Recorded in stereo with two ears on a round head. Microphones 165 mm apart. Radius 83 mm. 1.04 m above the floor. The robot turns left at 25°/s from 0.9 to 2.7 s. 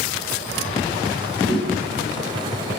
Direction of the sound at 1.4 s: 45° left (ahead or behind).